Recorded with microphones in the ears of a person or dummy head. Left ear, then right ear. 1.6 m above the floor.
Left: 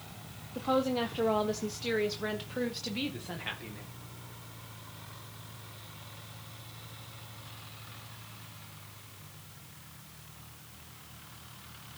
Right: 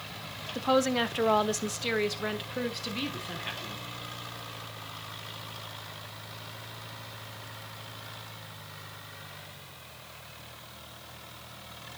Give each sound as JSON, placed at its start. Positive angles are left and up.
{"t": 0.6, "sound": "a woman speaking", "side_deg": -70, "distance_m": 1.2}